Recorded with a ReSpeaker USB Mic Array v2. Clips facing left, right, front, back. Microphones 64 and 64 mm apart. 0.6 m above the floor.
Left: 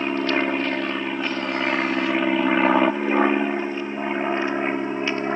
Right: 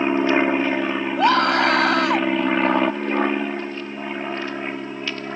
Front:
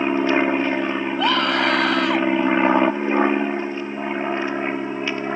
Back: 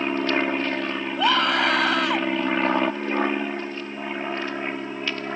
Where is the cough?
I don't hear a cough.